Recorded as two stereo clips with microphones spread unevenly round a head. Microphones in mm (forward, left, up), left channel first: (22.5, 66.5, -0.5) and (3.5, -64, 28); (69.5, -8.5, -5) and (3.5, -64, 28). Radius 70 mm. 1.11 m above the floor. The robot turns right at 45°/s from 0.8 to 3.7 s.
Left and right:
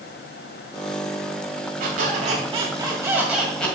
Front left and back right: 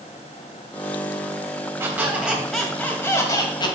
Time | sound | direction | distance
1.8 | a squeak | 90° right | 2 m